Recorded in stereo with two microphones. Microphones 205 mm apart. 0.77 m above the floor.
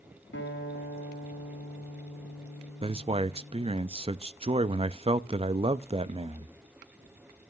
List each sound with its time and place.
0.3 s a guitar: 75° left (ahead or behind), 5.5 m
2.8 s a man speaking: 30° right (ahead or behind), 0.5 m